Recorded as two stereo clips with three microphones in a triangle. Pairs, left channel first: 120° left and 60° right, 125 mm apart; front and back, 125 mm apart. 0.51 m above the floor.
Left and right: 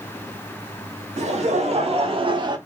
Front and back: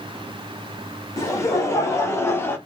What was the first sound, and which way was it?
Laughter, 65° right.